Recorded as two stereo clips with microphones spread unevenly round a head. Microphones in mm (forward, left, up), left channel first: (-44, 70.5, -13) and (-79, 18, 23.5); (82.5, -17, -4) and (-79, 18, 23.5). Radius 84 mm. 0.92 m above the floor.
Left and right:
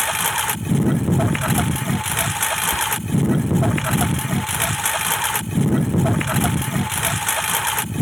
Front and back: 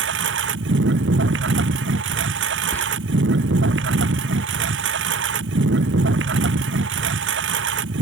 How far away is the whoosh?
I don't hear a whoosh.